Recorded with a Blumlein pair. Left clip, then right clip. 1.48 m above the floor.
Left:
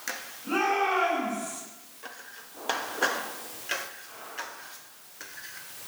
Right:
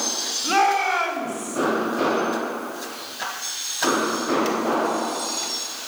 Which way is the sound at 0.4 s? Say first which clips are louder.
Right 6 dB; 40° right.